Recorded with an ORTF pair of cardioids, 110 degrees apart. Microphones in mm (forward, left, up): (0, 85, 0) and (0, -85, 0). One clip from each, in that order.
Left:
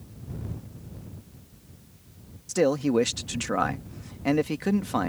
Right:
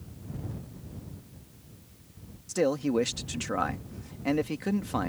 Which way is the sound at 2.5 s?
20° left.